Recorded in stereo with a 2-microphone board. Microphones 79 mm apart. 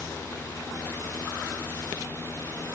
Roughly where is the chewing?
No chewing in this recording.